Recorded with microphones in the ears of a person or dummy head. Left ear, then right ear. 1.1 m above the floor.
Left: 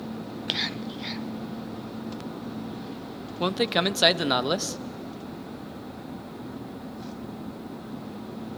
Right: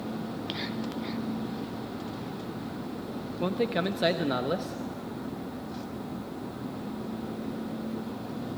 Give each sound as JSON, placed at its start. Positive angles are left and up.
{"t": 0.5, "sound": "whispering", "side_deg": 35, "distance_m": 0.6}
{"t": 3.4, "sound": "a man speaking", "side_deg": 40, "distance_m": 1.0}